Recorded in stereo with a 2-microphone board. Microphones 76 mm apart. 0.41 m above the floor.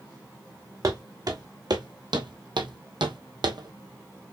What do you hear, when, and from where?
0.8 s footsteps: 50° right (ahead or behind), 1.7 m; by 4.3 s 45° right (ahead or behind), 1.3 m